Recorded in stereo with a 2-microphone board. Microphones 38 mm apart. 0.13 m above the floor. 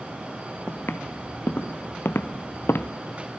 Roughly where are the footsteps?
Left.